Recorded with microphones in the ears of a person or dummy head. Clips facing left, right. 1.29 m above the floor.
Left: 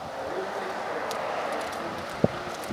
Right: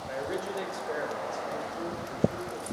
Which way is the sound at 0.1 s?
40° right (ahead or behind).